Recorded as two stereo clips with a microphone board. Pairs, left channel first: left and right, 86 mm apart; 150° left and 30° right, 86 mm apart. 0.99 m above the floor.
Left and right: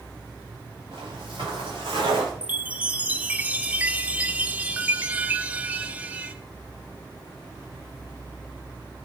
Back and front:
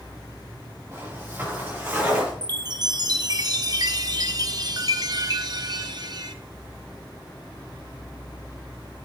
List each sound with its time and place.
0.9 s footsteps: 95° right, 6.5 m; by 2.3 s 105° right, 7.5 m
2.4 s a chime: 25° right, 0.7 m